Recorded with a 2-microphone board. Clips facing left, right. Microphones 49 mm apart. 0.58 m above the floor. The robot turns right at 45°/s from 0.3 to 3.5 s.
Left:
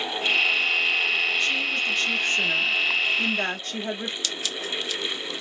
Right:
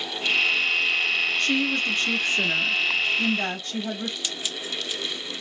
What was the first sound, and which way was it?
A woman speaking, 60° right.